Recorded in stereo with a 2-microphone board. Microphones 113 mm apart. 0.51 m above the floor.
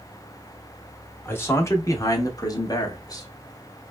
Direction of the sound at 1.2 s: 20° left (ahead or behind).